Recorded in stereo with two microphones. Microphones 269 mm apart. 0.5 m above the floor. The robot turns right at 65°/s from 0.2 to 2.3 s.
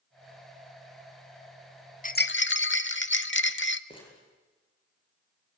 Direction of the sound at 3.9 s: 20° left (ahead or behind).